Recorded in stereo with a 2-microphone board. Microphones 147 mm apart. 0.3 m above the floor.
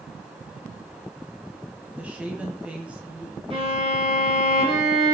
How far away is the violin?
About 4.5 m.